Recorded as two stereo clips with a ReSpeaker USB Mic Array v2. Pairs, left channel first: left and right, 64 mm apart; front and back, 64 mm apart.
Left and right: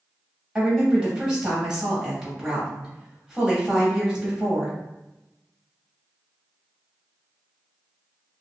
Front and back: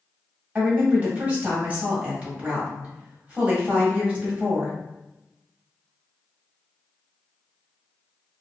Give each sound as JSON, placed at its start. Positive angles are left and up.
{"t": 0.6, "sound": "a woman speaking", "azimuth_deg": -150, "distance_m": 1.4}